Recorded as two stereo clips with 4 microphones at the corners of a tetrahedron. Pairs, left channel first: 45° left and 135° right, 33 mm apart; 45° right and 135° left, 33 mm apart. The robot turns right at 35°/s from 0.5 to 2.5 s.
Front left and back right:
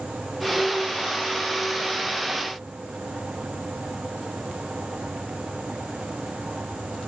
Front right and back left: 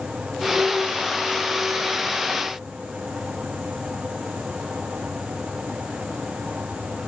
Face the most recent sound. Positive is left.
No sound to turn to.